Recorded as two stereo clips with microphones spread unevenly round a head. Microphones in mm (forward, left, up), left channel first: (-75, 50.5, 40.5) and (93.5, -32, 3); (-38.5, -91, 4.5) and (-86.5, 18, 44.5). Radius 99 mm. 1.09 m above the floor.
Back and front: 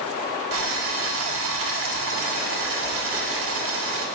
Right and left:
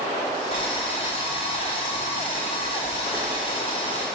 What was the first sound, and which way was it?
Boiling, 10° right.